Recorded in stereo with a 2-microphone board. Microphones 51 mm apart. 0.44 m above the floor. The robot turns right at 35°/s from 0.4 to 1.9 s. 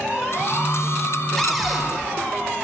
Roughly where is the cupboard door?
Centre.